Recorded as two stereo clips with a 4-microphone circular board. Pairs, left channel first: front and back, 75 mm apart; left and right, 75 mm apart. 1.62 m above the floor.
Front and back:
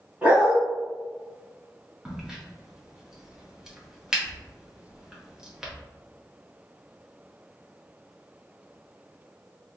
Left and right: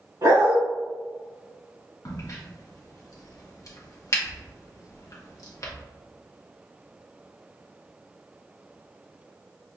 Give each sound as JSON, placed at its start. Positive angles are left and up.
{"t": 0.2, "sound": "a dog barking", "azimuth_deg": -115, "distance_m": 1.9}
{"t": 2.0, "sound": "a crack", "azimuth_deg": 105, "distance_m": 0.9}